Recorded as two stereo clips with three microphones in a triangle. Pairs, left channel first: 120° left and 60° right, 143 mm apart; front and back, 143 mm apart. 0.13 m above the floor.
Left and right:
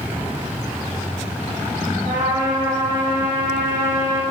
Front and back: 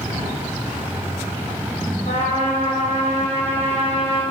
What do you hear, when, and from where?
2.1 s a trumpet: 45° right, 5 m